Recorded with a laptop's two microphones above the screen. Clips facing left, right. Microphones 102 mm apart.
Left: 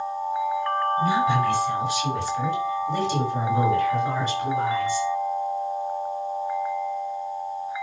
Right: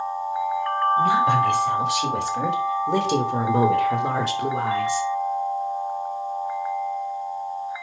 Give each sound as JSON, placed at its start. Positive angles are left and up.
{"t": 1.0, "sound": "a woman speaking", "side_deg": -70, "distance_m": 4.5}